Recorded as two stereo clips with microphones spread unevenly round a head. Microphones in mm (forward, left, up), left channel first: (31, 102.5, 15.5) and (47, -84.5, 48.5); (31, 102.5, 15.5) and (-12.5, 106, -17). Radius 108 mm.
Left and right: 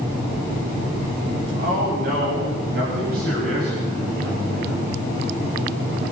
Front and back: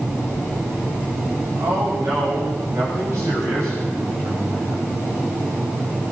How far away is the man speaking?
About 10 m.